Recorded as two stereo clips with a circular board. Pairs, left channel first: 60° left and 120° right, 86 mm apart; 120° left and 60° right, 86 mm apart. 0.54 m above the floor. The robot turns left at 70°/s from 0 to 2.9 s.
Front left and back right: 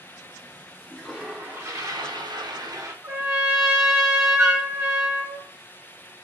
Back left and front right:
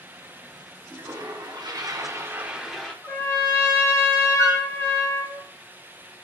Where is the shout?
I don't hear a shout.